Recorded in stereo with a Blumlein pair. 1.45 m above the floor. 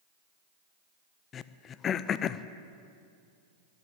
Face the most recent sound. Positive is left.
turn(degrees=25)